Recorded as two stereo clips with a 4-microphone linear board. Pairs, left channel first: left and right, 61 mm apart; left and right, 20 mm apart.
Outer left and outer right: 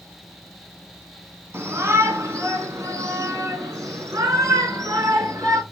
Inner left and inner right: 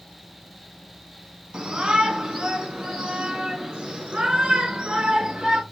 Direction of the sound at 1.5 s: 45° right (ahead or behind).